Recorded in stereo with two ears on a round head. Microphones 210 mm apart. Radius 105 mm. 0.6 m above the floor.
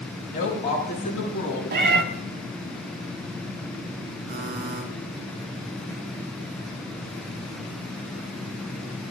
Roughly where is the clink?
No clink in this recording.